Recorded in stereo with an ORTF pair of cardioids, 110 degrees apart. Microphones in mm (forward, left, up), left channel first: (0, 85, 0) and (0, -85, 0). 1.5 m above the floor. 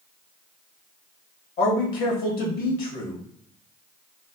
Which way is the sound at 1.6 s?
70° left.